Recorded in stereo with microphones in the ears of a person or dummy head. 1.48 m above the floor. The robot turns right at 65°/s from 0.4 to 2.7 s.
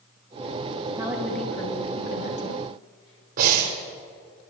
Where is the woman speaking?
20° right (ahead or behind), 2 m; by 3.3 s 85° left, 2 m.